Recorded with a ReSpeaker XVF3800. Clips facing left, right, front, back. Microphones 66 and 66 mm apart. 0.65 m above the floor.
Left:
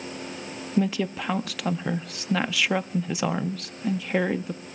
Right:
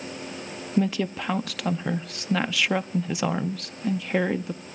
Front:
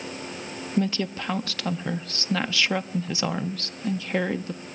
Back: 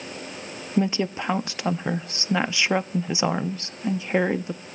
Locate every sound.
0.8 s a woman speaking: straight behind, 0.5 m